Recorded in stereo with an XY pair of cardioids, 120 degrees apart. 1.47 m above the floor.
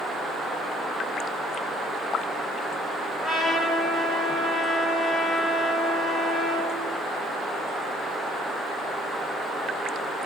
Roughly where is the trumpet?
Ahead left.